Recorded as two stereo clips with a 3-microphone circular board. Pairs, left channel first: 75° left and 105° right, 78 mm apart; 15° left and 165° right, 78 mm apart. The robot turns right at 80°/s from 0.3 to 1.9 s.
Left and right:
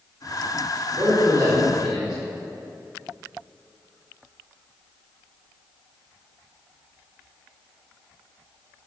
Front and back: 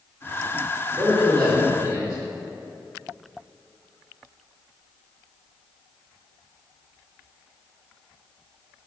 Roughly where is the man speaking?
Right.